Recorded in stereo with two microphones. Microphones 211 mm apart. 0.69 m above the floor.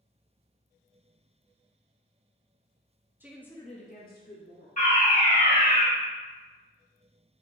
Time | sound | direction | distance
3.2 | a woman speaking | 10° right (ahead or behind) | 0.6 m
4.8 | a fire alarm | 40° left (ahead or behind) | 1.9 m